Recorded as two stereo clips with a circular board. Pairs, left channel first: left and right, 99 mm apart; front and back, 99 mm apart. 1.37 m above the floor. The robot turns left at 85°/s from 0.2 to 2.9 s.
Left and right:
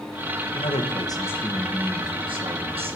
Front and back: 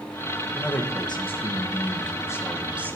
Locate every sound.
0.5 s a man speaking: 90° left, 1.6 m; by 3.0 s 110° right, 1.6 m